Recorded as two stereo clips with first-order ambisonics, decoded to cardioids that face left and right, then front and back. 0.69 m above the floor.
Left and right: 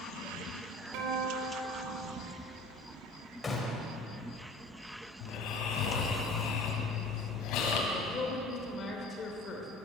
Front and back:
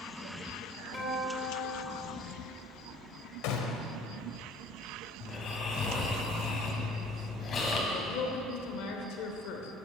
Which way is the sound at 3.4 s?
15° left.